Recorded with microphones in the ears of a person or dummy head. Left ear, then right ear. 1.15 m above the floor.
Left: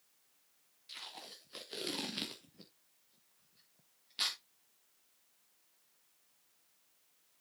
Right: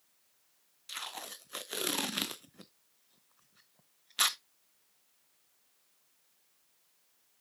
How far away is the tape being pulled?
About 0.6 m.